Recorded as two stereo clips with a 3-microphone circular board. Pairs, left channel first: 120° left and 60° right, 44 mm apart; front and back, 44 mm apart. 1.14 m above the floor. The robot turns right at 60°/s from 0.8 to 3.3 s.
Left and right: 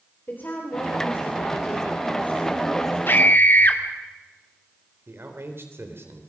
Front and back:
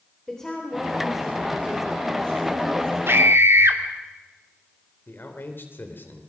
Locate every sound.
0.3 s a woman speaking: 75° left, 3.5 m; by 3.0 s 155° right, 3.5 m
3.1 s a scream: 155° left, 2.5 m; by 3.8 s 165° left, 2.5 m
5.1 s a man speaking: 35° right, 3.5 m